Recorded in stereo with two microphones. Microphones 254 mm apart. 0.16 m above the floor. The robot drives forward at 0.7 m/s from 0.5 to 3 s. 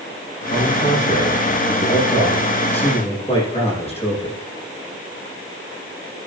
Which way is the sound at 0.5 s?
30° left (ahead or behind).